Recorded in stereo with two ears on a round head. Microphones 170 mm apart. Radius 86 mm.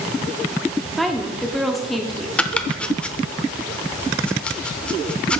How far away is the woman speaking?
About 0.8 m.